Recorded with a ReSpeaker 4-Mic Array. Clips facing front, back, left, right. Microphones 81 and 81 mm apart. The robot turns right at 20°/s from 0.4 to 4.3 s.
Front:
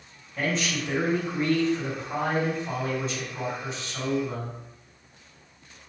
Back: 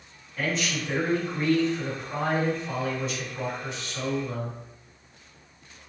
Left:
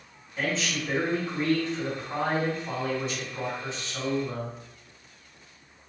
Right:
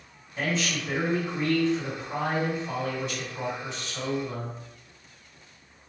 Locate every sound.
0.4 s a man speaking: 20° right, 1.8 m; by 4.6 s 55° left, 1.8 m